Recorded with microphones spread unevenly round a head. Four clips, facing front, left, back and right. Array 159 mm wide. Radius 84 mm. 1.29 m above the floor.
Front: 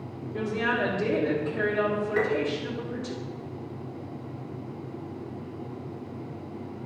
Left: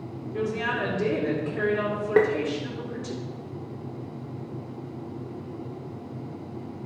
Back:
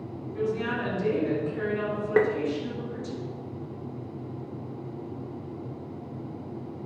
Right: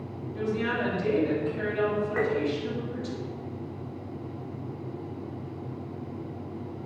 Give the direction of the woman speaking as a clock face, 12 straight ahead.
10 o'clock.